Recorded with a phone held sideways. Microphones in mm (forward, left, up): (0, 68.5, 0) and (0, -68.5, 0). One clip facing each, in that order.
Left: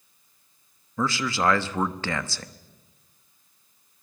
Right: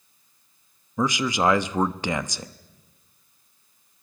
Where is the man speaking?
15° right (ahead or behind), 0.9 m.